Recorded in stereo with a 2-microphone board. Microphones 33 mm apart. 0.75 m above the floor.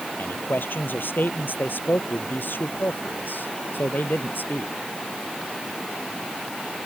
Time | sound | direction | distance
0.2 | a man speaking | 85° left | ?